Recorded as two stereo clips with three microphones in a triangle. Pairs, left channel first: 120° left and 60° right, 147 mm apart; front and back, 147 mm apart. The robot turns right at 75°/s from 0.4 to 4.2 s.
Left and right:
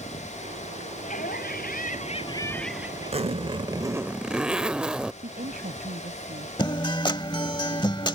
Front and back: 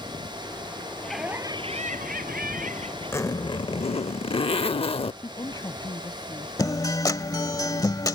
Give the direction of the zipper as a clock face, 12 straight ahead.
2 o'clock.